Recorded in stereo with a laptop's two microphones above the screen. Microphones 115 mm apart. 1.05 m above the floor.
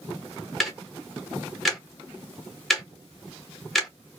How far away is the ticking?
About 0.8 m.